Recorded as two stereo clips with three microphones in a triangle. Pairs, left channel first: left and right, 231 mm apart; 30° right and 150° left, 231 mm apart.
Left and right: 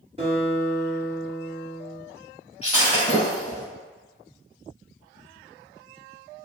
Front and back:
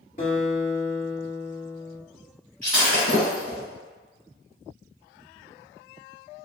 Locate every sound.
0.2 s a guitar: 50° right, 1.6 m
2.6 s breaking glass: 155° left, 1.9 m